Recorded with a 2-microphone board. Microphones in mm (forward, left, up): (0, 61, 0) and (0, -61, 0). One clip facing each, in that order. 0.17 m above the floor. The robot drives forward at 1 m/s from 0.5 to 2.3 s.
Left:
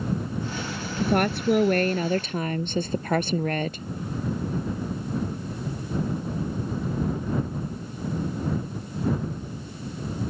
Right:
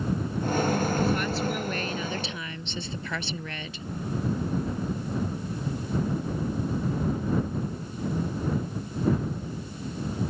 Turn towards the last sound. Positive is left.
turn(degrees=50)  # may be behind; listen again after turning